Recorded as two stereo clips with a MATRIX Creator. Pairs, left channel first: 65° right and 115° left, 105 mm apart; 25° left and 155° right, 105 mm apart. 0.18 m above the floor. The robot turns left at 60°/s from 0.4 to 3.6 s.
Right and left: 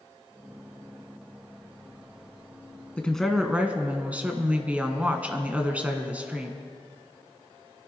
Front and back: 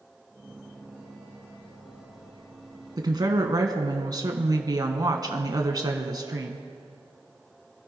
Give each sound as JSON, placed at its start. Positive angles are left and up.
{"t": 3.0, "sound": "a woman speaking", "azimuth_deg": -140, "distance_m": 1.3}